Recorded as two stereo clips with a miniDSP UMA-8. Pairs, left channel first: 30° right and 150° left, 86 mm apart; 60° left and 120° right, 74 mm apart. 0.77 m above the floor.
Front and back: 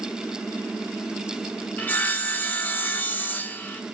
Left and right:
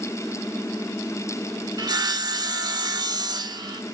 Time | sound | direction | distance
1.8 | sawing | 100° right | 0.7 m